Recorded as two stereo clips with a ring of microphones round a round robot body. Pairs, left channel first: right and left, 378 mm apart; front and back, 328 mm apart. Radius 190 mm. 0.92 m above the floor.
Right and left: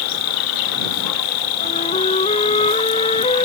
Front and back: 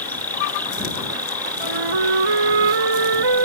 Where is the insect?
85° right.